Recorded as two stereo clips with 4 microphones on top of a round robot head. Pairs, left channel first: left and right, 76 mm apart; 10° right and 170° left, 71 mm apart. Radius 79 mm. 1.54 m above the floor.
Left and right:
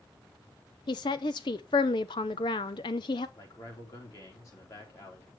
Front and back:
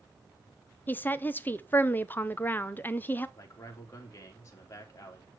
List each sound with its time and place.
0.9 s a woman speaking: 50° left, 0.7 m
3.4 s a man speaking: 40° left, 3 m